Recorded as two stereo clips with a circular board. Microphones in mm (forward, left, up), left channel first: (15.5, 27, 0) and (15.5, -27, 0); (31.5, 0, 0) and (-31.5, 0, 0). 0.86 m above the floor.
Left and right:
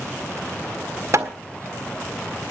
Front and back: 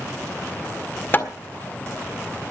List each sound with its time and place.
1.1 s hammering: 55° right, 1.7 m